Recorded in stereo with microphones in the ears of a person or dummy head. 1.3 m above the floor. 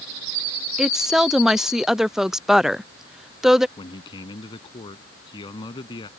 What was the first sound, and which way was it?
A woman speaking, centre (ahead or behind).